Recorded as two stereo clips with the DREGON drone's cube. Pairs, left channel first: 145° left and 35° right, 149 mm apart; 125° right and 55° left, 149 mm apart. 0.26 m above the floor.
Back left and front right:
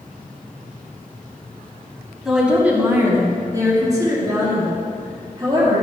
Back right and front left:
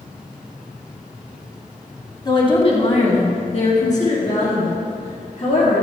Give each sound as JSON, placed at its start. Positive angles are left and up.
{"t": 2.2, "sound": "a woman speaking", "azimuth_deg": -120, "distance_m": 1.4}